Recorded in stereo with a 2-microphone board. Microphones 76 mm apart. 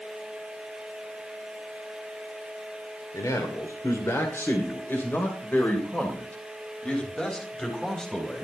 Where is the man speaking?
50° left (ahead or behind), 2.5 m; by 8.4 s 5° left (ahead or behind), 4 m.